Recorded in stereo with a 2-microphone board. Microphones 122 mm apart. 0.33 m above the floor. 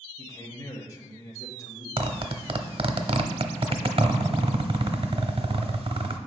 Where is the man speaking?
25° left (ahead or behind), 1.2 m.